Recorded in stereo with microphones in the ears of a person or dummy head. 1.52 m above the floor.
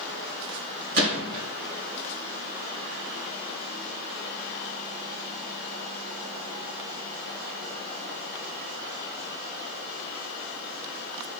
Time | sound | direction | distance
0.9 | a gunshot | 60° right (ahead or behind) | 3.5 m